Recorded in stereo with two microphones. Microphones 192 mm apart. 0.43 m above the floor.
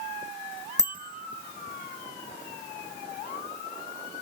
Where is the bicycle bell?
20° right (ahead or behind), 3.5 m.